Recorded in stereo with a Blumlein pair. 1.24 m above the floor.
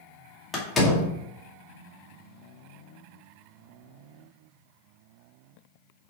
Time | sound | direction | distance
0.5 | a door slam | 15° left | 2 m